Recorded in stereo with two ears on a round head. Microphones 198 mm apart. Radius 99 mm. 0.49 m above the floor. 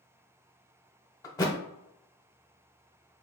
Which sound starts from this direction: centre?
A thud, at 1.2 s.